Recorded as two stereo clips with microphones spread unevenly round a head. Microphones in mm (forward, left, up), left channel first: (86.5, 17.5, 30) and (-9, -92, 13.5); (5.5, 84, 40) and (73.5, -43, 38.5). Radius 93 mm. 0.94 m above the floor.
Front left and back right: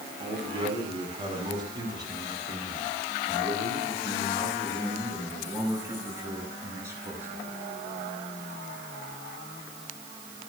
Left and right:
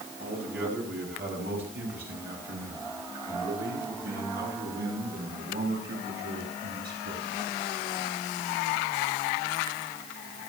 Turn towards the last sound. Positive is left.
turn(degrees=-60)